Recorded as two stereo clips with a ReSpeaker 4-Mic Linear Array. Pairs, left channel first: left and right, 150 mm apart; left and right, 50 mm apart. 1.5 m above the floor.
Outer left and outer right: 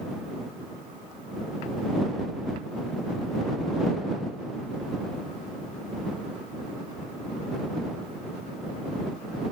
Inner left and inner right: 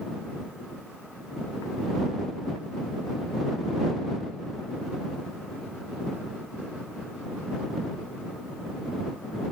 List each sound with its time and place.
Only background noise.